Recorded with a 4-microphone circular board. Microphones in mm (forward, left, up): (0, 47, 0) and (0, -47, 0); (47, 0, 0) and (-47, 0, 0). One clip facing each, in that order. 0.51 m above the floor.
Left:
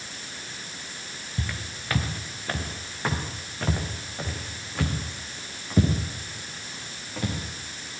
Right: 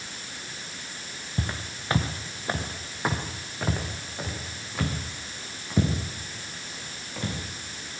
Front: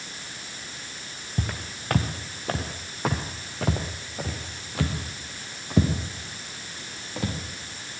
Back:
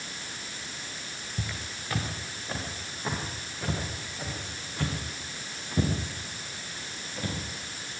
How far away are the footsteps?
About 1.9 m.